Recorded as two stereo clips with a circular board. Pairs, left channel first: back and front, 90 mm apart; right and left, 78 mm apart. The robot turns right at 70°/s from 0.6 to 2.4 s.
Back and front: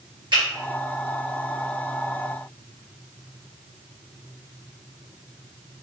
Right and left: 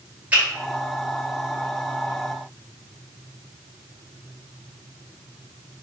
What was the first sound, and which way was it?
A finger snap, 20° left.